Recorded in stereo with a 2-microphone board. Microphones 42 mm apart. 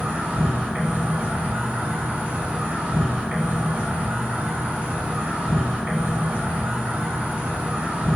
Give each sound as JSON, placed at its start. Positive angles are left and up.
{"t": 0.0, "sound": "an insect", "side_deg": -35, "distance_m": 1.9}